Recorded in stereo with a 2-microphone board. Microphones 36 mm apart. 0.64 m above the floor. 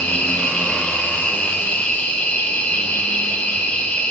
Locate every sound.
0.0 s an insect: 50° left (ahead or behind), 8 m